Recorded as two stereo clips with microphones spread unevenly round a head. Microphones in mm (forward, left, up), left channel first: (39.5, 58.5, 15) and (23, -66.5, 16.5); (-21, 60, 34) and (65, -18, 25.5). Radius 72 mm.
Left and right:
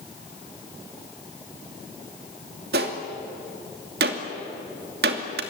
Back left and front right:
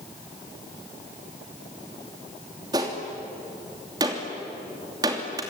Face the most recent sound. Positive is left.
turn(degrees=-110)